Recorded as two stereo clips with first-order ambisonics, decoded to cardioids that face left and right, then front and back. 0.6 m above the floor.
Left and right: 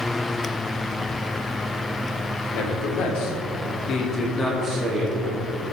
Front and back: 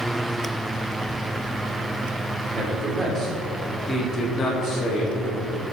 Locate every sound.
2.5 s a man speaking: 105° left, 2.5 m; by 5.5 s 35° right, 1.9 m